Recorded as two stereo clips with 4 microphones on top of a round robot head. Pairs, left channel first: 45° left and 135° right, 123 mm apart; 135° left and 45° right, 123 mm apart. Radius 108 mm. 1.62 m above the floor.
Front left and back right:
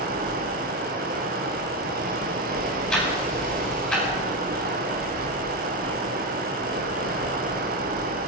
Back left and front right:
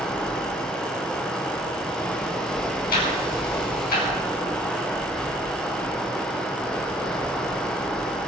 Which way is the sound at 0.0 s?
145° right.